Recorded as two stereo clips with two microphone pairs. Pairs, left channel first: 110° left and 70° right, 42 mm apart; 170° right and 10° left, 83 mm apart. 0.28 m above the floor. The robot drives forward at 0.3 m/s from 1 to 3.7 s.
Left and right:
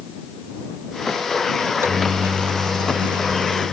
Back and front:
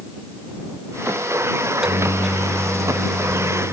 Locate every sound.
1.6 s a microwave: 70° right; by 3.7 s 90° right